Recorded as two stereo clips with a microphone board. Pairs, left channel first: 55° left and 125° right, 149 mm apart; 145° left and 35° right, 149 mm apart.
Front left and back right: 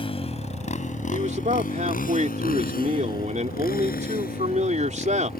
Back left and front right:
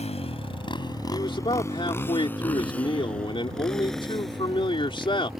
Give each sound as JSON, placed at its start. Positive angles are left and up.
{"t": 0.0, "sound": "a motorcycle", "azimuth_deg": 105}
{"t": 1.1, "sound": "a man speaking", "azimuth_deg": -160}